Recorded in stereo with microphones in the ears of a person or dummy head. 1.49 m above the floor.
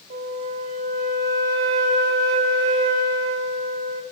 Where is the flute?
35° right (ahead or behind), 1.6 m.